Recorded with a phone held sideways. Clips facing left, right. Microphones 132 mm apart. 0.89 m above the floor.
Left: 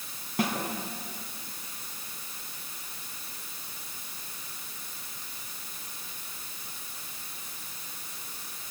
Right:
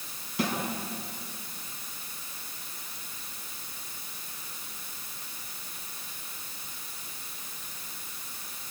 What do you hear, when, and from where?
0.4 s a snare drum: 50° left (ahead or behind), 6.5 m